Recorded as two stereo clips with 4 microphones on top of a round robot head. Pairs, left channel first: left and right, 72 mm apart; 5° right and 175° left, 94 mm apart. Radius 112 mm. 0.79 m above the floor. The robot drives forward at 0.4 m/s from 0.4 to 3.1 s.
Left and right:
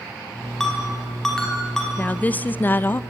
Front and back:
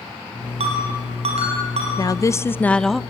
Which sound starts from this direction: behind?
A ringtone, at 0.6 s.